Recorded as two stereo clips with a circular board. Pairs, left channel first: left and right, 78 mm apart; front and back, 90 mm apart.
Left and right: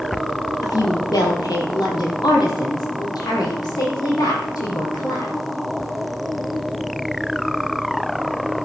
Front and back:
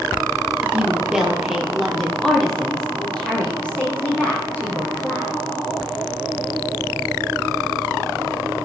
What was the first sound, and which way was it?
A woman speaking, 105° left.